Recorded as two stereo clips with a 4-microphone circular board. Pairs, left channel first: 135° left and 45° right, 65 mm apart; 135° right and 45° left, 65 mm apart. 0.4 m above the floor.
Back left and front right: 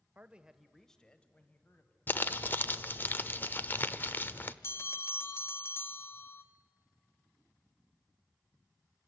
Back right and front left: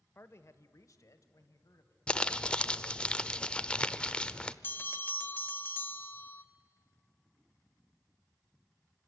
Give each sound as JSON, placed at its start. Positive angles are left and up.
{"t": 0.1, "sound": "a man speaking", "azimuth_deg": -100, "distance_m": 1.0}
{"t": 2.1, "sound": "crumpling", "azimuth_deg": 160, "distance_m": 0.6}
{"t": 4.6, "sound": "a bell", "azimuth_deg": 175, "distance_m": 1.0}